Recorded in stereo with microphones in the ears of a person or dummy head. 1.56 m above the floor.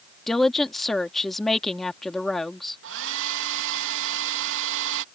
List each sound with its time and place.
0.3 s a woman speaking: 5° left (ahead or behind)
2.8 s a hair dryer: 65° right (ahead or behind)